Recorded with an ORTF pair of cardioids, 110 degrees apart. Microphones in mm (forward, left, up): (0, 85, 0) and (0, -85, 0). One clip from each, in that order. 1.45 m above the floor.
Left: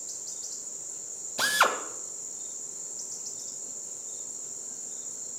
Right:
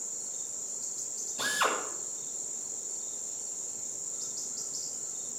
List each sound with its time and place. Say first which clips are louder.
1.4 s a drill: left 5 dB; 60° left, 1.5 m